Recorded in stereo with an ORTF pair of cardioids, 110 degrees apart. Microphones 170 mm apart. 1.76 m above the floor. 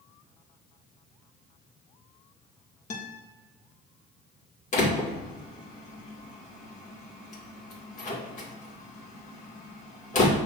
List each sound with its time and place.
2.9 s a guitar: 45° left, 1.6 m
4.7 s a door slam: 45° left, 2.0 m